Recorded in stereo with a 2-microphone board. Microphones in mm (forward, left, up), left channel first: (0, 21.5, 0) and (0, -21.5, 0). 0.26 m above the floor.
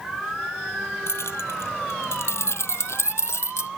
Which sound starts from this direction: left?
Keys jangling, at 1.1 s.